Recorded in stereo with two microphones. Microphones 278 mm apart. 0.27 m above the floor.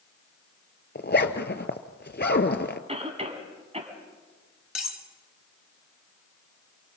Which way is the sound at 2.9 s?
20° right (ahead or behind).